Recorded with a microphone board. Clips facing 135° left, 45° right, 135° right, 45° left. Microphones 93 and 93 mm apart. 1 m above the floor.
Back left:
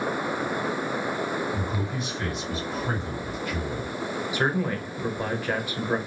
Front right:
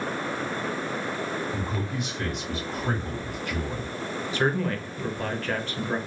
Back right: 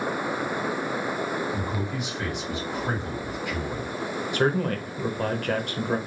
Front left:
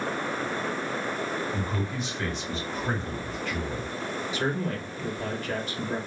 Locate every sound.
1.5 s a man speaking: 60° right, 2.0 m
4.3 s a man speaking: 150° right, 0.7 m